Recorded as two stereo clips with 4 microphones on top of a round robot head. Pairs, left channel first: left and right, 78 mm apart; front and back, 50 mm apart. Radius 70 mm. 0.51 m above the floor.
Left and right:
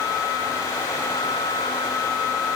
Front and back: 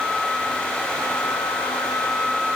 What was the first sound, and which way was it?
Only background noise.